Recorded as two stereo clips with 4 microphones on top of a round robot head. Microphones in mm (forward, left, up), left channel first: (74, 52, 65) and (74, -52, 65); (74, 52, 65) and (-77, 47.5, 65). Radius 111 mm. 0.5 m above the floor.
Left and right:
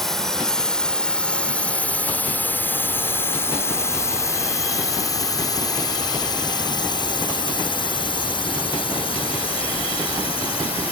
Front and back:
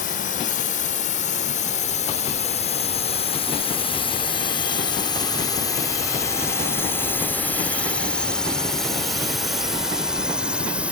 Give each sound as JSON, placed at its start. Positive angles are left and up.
{"t": 0.0, "sound": "a drone", "azimuth_deg": 5}